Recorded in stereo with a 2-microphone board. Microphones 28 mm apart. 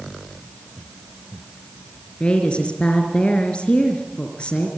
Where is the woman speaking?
35° left (ahead or behind), 3.5 m.